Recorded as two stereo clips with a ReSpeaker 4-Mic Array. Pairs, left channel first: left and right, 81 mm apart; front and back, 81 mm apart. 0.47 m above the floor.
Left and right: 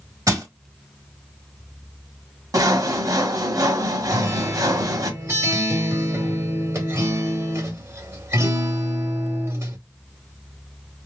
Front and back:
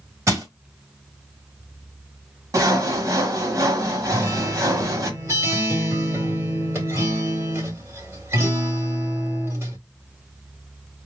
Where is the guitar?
130° right, 1.9 m.